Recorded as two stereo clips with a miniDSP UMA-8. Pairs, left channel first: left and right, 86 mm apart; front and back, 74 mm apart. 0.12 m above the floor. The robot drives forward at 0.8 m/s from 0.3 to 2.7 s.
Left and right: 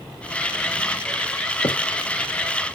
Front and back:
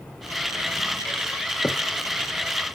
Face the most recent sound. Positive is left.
turn(degrees=95)